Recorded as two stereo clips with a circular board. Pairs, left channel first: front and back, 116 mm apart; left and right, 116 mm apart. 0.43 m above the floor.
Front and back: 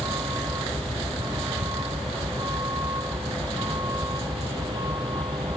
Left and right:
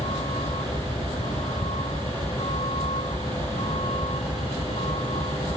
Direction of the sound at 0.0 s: 115° left.